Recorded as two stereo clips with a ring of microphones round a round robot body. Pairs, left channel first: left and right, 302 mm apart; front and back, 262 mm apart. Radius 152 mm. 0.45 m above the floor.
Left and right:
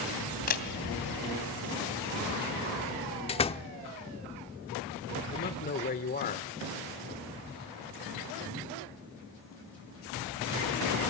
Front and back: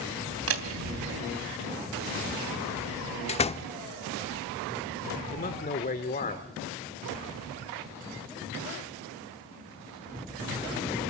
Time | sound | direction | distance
0.5 | a door slam | 150° left | 3 m
3.3 | a door slam | 40° left | 0.8 m
5.3 | a man speaking | 40° left | 1.4 m